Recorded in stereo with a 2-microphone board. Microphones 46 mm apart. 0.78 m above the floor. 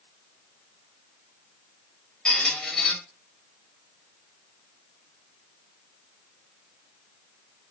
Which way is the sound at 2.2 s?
15° left (ahead or behind).